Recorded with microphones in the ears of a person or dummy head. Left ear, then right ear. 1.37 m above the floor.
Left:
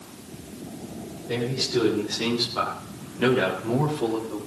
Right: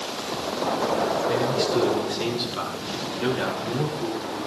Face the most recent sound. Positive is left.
turn(degrees=30)  # may be behind; listen again after turning